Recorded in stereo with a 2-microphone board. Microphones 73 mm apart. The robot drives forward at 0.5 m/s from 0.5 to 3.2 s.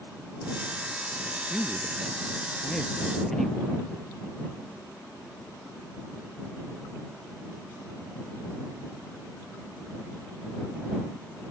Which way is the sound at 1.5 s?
10° left (ahead or behind).